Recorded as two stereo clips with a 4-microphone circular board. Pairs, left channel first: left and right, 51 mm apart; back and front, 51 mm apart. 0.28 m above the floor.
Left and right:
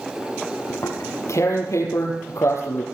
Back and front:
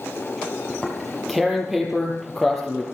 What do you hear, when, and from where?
0.7 s tearing paper: 85° left, 5.5 m